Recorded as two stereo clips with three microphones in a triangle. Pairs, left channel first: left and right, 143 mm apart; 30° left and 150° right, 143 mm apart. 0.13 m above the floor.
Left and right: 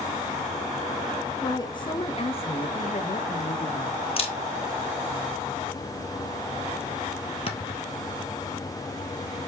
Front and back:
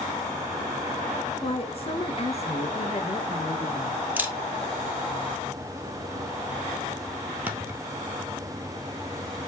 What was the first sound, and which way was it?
A woman speaking, 45° left.